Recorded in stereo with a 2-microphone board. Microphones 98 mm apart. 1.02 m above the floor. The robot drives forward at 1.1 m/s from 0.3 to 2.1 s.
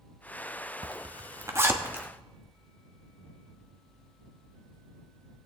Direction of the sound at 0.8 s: 65° right (ahead or behind).